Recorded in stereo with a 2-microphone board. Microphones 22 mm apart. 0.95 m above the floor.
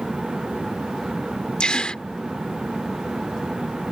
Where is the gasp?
50° left (ahead or behind).